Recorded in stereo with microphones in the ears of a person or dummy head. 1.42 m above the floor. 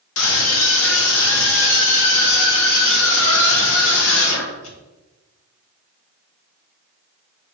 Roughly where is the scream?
Left.